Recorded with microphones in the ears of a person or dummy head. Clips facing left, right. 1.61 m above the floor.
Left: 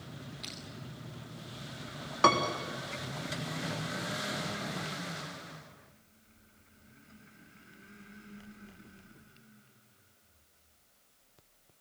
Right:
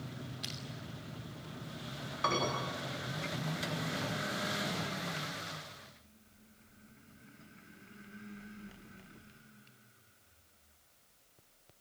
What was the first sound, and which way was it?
Crushing, 15° right (ahead or behind).